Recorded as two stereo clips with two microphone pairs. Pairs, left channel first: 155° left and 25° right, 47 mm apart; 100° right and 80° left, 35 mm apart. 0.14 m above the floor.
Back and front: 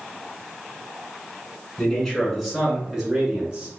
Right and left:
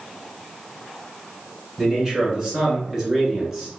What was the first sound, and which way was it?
A man speaking, 95° left.